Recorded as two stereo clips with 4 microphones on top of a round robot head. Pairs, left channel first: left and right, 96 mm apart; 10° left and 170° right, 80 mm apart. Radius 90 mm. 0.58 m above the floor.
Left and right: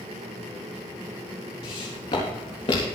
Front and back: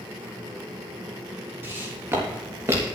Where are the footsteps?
130° left, 4.5 m; by 2.9 s 135° left, 3.5 m.